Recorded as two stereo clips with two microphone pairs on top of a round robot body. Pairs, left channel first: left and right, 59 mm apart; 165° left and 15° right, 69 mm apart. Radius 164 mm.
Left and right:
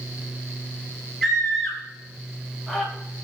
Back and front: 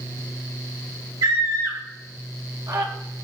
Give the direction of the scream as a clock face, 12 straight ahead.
12 o'clock.